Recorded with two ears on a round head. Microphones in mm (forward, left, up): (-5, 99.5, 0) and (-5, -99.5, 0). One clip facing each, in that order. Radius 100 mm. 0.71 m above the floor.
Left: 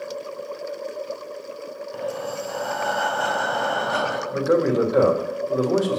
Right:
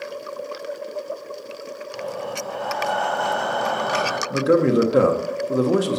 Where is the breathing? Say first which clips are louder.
Left 1 dB; centre (ahead or behind), 4 m.